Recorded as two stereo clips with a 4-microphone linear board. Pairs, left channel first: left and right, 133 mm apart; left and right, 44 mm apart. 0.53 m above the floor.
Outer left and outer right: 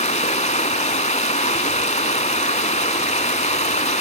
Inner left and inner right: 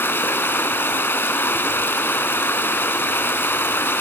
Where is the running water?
60° left (ahead or behind), 0.8 m.